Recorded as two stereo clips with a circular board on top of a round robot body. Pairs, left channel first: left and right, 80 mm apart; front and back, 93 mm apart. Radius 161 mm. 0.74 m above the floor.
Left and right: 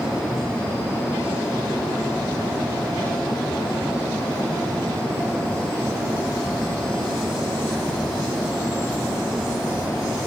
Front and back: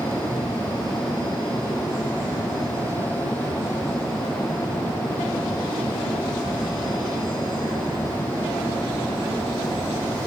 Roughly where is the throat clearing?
I don't hear throat clearing.